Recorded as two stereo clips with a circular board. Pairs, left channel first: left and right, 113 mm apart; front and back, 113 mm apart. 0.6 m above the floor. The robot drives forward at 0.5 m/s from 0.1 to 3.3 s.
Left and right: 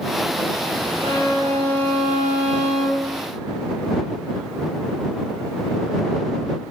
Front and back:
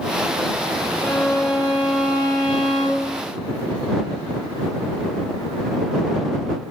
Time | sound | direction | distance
1.0 | a violin | 80° right | 3.5 m